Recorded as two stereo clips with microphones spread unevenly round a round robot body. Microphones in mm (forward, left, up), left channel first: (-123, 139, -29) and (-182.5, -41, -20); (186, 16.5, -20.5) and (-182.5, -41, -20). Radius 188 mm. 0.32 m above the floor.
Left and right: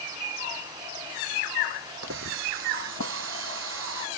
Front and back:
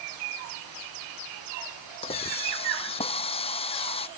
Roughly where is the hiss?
Ahead right.